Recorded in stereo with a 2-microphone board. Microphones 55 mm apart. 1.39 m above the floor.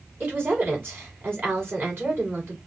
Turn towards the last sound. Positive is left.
turn(degrees=-45)  # may be behind; listen again after turning